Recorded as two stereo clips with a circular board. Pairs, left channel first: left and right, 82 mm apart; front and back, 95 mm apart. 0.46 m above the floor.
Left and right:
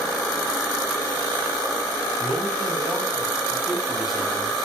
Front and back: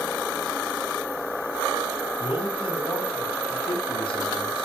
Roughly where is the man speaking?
Ahead.